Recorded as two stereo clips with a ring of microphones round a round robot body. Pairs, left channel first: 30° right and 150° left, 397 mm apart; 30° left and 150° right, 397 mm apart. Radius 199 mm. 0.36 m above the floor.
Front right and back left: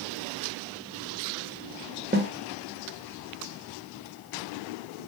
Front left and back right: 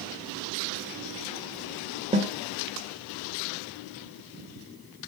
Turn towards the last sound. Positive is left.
turn(degrees=160)